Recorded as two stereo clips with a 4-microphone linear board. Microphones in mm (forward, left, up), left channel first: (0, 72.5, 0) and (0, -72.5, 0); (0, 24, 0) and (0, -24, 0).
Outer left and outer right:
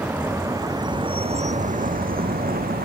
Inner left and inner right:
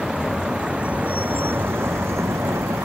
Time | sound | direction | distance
0.0 | a vehicle | 10° right (ahead or behind) | ?